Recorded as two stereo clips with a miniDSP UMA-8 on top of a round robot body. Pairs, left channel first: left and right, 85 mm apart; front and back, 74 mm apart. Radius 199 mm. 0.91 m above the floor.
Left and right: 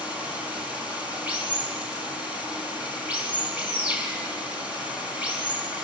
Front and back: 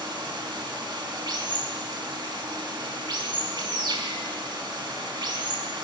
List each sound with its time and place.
0.0 s running water: 165° right, 5 m